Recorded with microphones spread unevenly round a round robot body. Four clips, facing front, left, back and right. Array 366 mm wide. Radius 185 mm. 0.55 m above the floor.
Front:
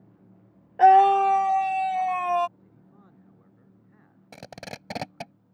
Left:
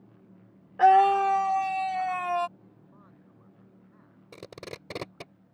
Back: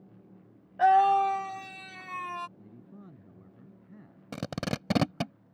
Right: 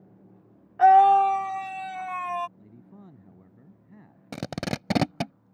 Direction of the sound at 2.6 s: 130° right.